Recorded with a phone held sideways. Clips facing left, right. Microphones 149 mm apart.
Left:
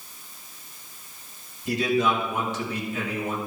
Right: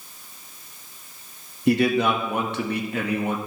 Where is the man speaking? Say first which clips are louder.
Right 4 dB; 65° right (ahead or behind), 1.7 m.